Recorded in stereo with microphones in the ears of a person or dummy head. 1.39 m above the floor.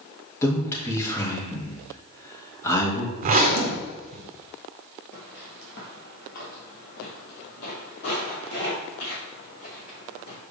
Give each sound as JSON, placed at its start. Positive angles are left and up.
{"t": 0.4, "sound": "a man speaking", "side_deg": 15, "distance_m": 1.6}
{"t": 3.2, "sound": "a zipper", "side_deg": -45, "distance_m": 0.8}
{"t": 5.1, "sound": "footsteps", "side_deg": 50, "distance_m": 2.0}